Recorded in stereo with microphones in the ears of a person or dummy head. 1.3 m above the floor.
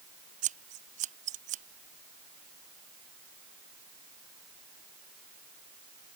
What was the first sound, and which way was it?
Scissors, 40° right (ahead or behind).